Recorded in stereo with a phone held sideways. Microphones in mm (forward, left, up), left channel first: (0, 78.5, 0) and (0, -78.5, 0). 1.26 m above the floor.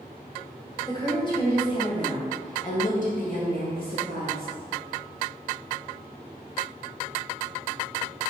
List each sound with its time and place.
0.8 s a woman speaking: 25° left (ahead or behind), 2.5 m; by 4.5 s 80° left, 1.9 m